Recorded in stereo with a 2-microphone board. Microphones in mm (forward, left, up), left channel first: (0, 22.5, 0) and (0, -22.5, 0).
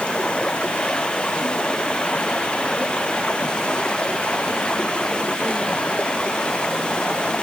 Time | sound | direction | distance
0.0 | running water | 25° left (ahead or behind) | ?